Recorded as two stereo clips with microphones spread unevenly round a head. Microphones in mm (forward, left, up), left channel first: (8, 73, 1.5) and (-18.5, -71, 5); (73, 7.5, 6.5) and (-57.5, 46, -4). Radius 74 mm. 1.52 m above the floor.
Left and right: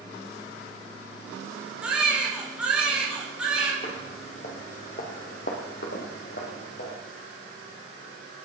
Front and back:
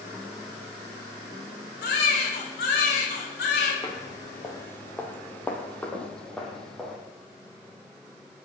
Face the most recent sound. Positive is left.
turn(degrees=65)